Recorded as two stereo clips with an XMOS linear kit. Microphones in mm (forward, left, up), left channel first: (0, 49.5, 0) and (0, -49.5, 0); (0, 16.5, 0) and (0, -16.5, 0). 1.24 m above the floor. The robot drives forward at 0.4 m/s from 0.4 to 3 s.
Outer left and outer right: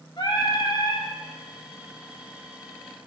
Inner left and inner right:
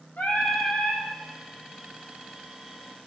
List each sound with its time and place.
0.2 s singing: 45° left (ahead or behind), 2.5 m; by 1.1 s 40° left (ahead or behind), 2.5 m